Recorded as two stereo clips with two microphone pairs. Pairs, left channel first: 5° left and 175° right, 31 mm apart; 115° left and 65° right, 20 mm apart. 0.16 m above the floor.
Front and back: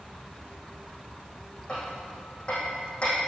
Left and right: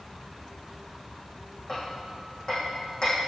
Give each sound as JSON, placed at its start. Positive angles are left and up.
{"t": 1.7, "sound": "hammering", "azimuth_deg": 60, "distance_m": 5.0}